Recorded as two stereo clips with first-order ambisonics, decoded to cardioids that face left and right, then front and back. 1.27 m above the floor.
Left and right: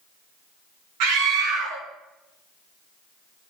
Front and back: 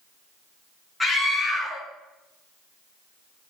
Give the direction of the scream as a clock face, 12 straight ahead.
3 o'clock.